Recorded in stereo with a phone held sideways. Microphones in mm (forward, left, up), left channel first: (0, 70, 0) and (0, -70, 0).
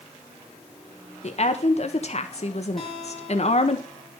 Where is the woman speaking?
55° left (ahead or behind), 1.4 m.